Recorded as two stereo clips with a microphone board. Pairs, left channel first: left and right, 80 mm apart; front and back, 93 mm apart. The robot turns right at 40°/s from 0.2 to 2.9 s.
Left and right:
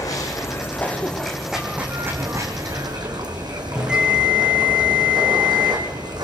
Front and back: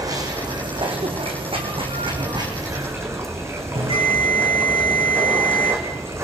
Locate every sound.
0.0 s running water: 130° left, 3 m; by 6.2 s 120° right, 3 m
3.8 s a bell: 170° right, 6.5 m